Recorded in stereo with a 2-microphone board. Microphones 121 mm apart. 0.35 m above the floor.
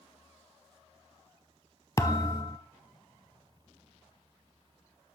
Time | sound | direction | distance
2.0 | a thud | 25° left (ahead or behind) | 0.6 m